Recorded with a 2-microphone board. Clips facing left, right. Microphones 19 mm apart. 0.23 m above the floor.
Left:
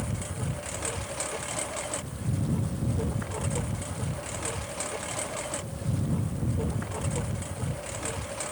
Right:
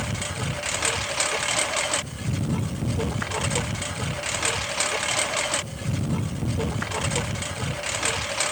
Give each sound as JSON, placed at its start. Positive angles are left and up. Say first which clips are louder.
{"t": 0.0, "sound": "a lawn mower", "louder": "right 6 dB", "side_deg": -50}